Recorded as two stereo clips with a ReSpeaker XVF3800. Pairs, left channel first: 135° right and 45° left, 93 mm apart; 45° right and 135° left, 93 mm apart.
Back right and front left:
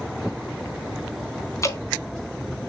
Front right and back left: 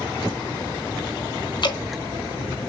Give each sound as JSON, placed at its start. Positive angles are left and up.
{"t": 1.6, "sound": "dripping", "azimuth_deg": -80, "distance_m": 0.9}